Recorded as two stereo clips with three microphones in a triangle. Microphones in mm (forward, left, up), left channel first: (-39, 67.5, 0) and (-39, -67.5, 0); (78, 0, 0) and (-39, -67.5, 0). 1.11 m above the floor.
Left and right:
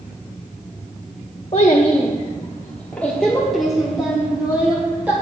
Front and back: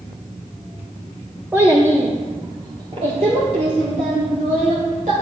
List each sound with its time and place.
1.5 s a child speaking: 135° left, 1.0 m; by 5.1 s 170° right, 2 m